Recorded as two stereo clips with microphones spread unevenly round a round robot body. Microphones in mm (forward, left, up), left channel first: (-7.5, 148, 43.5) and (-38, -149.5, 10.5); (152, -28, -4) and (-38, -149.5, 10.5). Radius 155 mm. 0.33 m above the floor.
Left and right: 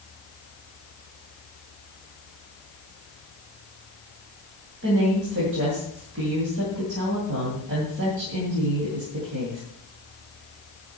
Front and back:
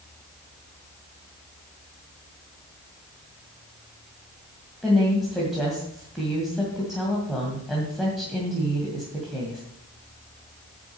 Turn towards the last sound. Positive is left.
turn(degrees=-55)